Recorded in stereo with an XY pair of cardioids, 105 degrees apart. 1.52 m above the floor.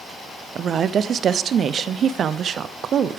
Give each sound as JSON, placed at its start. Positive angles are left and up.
{"t": 0.6, "sound": "a woman speaking", "azimuth_deg": -55, "distance_m": 0.5}